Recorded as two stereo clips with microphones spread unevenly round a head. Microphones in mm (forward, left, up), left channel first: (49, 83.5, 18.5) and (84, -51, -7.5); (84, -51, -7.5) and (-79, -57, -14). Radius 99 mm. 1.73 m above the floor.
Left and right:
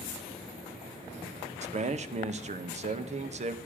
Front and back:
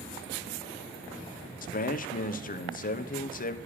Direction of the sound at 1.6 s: 35° right.